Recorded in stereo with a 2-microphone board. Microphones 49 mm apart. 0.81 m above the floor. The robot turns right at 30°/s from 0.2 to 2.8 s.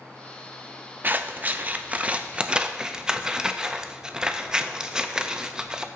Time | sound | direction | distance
1.0 | scissors | 35° right (ahead or behind) | 0.6 m